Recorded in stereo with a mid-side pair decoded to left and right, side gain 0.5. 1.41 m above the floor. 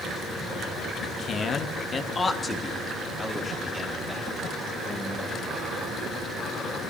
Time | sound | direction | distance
1.0 | a man speaking | 55° left | 1.7 m